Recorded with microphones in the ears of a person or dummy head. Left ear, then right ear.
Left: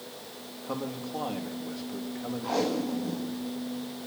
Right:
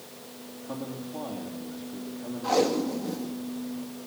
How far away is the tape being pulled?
About 1.7 m.